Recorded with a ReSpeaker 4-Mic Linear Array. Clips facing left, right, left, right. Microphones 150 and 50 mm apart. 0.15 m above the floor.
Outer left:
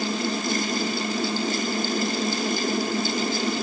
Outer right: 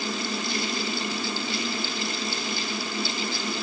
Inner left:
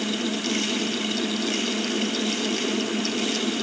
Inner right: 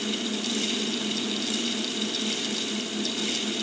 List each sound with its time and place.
Only background noise.